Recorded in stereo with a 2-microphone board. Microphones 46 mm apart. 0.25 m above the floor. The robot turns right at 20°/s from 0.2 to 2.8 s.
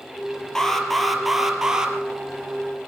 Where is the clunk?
I don't hear a clunk.